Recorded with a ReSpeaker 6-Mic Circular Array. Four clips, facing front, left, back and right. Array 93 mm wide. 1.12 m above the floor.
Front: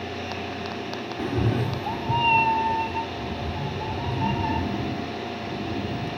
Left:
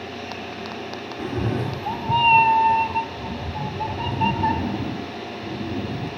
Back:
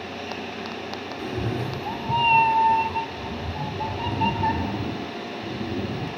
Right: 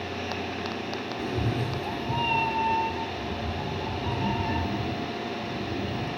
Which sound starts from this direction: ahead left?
A cat meowing, at 1.2 s.